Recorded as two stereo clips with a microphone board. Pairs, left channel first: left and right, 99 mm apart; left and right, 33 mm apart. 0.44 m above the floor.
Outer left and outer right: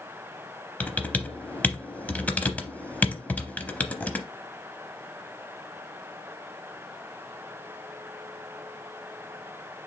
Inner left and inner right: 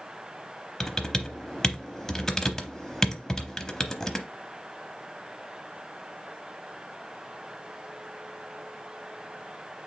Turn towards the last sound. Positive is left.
turn(degrees=15)  # may be behind; listen again after turning